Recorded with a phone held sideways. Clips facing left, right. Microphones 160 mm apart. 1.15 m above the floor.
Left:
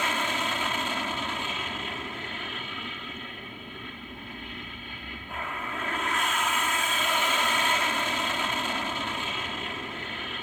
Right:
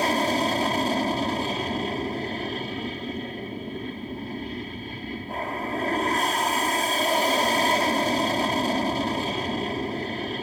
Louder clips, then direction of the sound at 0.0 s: Right 8 dB; 35° right (ahead or behind).